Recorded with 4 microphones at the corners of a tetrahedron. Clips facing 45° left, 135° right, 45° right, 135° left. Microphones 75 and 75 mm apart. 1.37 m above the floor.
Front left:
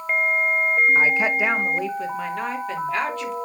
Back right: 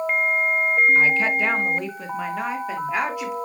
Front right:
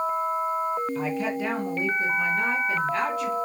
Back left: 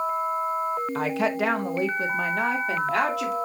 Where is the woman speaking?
110° left, 1.4 m; by 3.4 s 145° left, 4 m.